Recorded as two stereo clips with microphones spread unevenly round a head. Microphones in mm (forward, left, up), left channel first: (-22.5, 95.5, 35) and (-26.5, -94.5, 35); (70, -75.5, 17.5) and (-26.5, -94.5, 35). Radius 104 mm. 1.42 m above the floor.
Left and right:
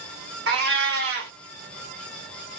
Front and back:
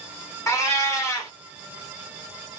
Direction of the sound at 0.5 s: 55° right.